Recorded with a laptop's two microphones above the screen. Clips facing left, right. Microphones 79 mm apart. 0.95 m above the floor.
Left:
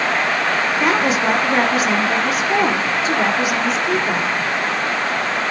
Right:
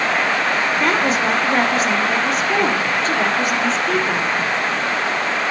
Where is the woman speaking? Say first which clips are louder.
Left 2 dB; 5° left (ahead or behind), 2 m.